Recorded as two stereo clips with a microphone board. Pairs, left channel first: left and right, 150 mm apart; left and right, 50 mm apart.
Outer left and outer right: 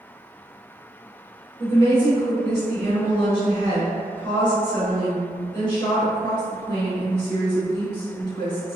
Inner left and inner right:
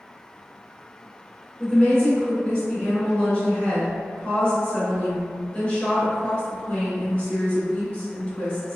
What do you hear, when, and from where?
1.6 s a woman speaking: 35° left (ahead or behind), 1.6 m